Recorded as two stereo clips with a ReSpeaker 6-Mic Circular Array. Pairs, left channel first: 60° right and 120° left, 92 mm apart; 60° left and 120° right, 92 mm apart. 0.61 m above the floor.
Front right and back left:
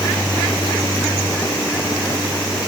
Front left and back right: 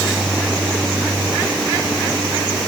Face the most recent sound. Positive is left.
No sound to turn to.